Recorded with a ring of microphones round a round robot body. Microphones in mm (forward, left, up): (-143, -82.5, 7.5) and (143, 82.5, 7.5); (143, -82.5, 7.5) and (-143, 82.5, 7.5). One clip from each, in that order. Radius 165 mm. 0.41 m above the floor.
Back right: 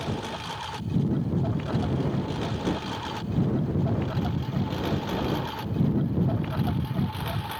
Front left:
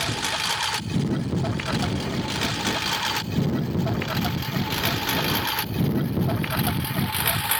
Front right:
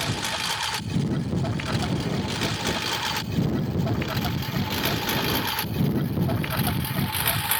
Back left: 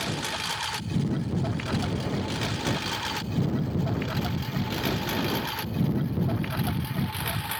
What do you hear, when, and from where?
0.0 s a lawn mower: 50° left; by 7.6 s 35° left